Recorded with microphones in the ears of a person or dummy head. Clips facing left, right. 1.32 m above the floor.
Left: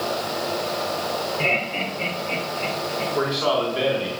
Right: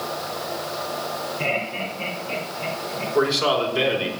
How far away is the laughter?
About 3.5 m.